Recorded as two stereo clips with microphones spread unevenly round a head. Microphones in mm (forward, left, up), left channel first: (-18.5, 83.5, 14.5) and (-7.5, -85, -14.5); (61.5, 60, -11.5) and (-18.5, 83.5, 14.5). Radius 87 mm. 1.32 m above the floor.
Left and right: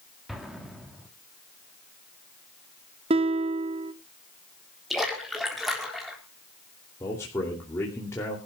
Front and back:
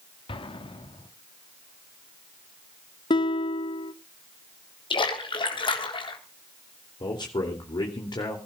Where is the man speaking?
20° left, 2.5 m.